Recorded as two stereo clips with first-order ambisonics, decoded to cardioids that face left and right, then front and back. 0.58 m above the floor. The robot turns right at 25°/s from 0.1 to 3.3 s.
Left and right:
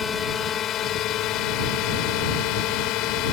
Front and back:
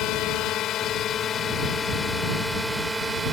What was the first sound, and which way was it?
A drone, 25° left.